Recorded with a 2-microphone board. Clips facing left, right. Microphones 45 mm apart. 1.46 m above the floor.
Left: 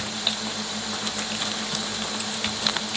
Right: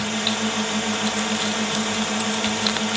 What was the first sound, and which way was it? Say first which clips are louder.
A drone: right 6 dB; 60° right (ahead or behind).